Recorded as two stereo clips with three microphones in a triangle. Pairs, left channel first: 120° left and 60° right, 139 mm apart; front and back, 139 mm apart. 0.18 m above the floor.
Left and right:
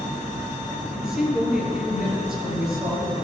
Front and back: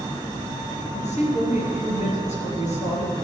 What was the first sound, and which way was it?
A woman speaking, 25° left.